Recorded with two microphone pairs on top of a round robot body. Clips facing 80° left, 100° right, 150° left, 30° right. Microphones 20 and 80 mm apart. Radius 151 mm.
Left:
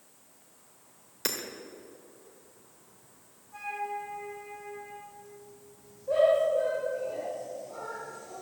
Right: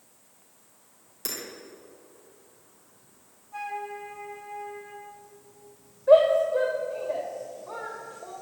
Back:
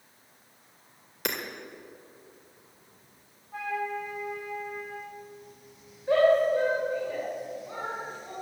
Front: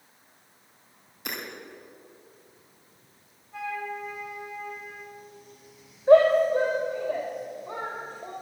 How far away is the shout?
About 2.5 m.